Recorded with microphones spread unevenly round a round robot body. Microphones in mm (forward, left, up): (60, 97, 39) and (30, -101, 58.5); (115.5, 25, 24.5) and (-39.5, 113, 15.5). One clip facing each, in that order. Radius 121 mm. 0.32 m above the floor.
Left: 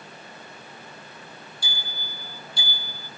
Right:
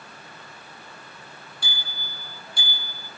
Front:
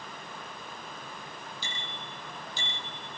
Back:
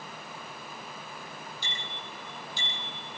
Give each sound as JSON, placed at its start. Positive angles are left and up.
{"t": 1.6, "sound": "a bicycle bell", "azimuth_deg": -65, "distance_m": 8.0}